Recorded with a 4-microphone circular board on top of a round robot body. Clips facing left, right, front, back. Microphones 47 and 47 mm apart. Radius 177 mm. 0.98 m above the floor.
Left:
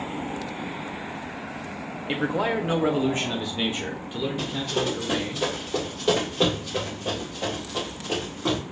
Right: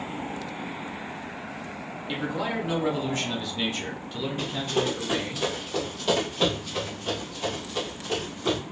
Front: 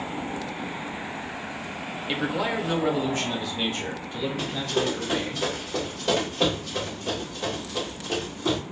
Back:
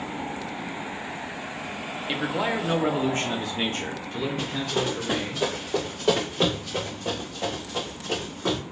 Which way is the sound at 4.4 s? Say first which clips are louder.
Right 3 dB, front 2 dB; 155° right.